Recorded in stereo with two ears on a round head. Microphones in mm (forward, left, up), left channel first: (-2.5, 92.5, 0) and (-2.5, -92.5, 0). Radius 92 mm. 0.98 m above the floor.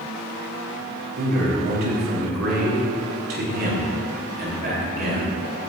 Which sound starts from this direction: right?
A man speaking, at 1.2 s.